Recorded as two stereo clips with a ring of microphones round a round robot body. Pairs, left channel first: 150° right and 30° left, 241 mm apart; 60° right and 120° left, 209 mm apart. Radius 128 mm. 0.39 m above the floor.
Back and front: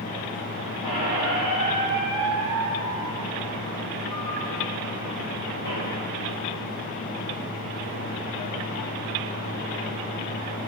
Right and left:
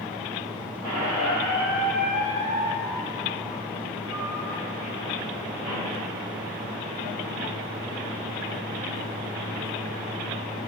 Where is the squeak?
155° right, 1.9 m.